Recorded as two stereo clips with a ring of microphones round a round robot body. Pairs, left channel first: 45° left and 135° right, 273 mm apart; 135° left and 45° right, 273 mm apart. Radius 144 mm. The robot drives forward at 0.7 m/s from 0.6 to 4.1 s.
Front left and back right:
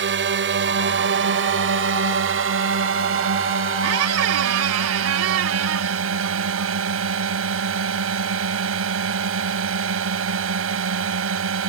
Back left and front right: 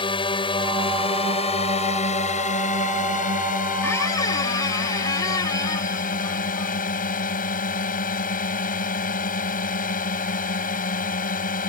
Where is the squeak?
145° right; by 7.1 s 150° right.